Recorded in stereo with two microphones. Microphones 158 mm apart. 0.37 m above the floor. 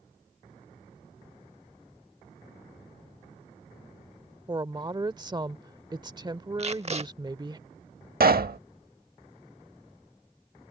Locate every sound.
4.5 s a woman speaking: 30° right (ahead or behind)
6.6 s tape being pulled: 40° right (ahead or behind)
8.2 s a pop: 70° right (ahead or behind)